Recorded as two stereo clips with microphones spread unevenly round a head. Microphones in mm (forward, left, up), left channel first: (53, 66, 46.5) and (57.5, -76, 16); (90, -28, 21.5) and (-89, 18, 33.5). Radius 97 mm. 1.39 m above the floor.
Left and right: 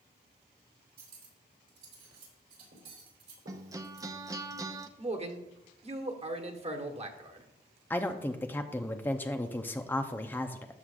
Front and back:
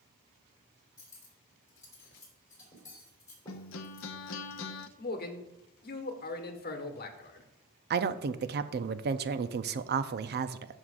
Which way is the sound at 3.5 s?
15° right.